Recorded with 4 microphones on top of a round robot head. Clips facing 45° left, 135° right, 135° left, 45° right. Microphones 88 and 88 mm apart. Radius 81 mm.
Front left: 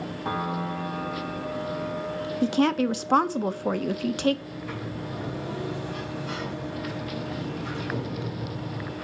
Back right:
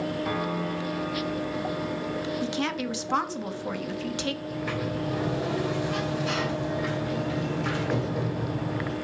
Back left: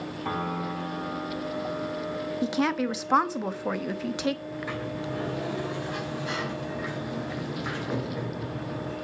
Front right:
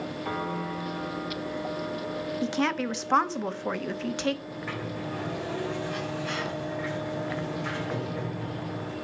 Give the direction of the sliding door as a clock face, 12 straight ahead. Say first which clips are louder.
Back right 5 dB, back left 2 dB; 5 o'clock.